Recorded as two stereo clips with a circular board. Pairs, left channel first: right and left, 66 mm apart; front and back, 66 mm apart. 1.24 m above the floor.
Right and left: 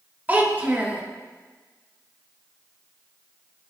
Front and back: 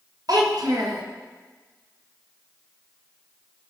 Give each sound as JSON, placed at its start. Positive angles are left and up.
{"t": 0.3, "sound": "a child speaking", "azimuth_deg": 155, "distance_m": 1.2}